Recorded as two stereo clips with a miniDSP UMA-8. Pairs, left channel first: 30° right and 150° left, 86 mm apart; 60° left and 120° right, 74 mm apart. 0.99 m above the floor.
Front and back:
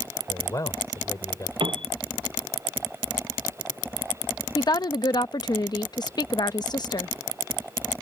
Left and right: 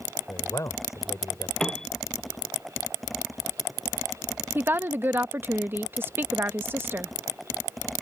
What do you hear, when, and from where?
0.3 s a man speaking: 15° left
1.6 s a piano: 140° left
4.5 s a woman speaking: 65° right